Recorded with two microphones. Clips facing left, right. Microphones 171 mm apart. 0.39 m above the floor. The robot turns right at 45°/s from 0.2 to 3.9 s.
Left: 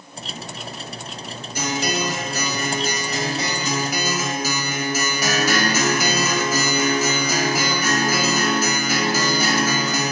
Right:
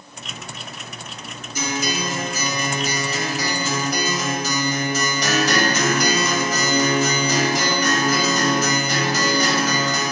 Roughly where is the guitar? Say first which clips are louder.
Left 1 dB; ahead left.